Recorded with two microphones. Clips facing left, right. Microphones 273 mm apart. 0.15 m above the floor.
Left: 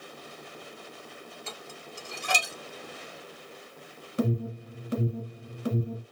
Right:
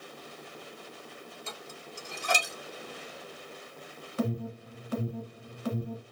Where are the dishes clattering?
65° left (ahead or behind), 2.5 m.